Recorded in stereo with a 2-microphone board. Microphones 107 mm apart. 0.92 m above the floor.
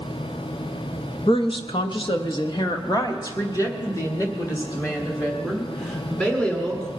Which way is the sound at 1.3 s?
50° left (ahead or behind).